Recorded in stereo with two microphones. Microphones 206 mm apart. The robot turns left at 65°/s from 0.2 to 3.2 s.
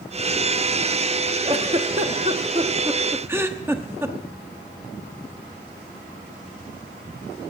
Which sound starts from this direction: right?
A giggle, at 1.4 s.